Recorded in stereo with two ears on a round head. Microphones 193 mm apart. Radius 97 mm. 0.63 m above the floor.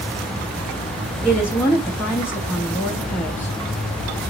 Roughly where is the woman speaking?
Centre.